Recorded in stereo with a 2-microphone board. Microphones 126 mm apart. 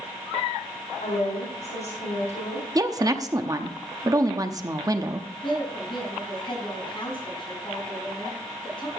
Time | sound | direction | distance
1.0 | a woman speaking | 80° left | 3.5 m
2.8 | a woman speaking | 30° right (ahead or behind) | 0.8 m
5.4 | a woman speaking | 40° left (ahead or behind) | 5.5 m